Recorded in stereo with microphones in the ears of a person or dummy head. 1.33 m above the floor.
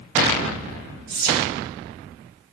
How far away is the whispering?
About 1.1 m.